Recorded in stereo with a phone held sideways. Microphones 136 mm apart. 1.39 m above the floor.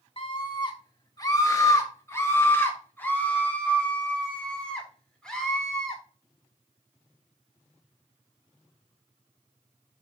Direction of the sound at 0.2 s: 40° left (ahead or behind).